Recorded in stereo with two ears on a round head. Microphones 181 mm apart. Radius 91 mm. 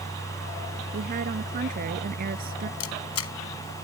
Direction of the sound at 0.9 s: 45° right (ahead or behind).